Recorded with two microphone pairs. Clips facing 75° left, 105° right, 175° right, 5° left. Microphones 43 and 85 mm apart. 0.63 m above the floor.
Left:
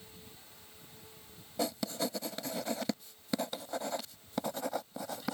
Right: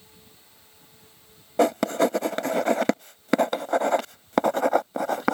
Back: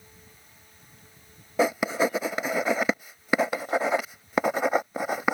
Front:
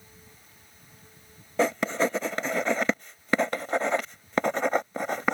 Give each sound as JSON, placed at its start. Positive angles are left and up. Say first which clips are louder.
{"t": 1.6, "sound": "writing", "louder": "right 14 dB, back 1 dB", "azimuth_deg": -95}